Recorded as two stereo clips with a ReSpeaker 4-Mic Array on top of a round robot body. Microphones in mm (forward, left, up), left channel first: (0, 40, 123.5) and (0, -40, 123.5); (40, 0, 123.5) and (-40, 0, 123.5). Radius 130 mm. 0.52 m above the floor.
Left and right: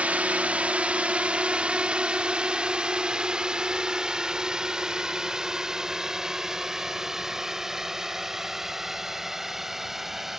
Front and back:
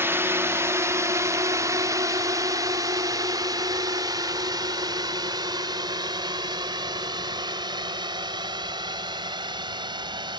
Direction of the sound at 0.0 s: 150° right.